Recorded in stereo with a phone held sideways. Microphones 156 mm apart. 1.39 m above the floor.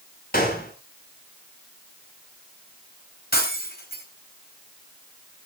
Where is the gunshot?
70° left (ahead or behind), 4 m.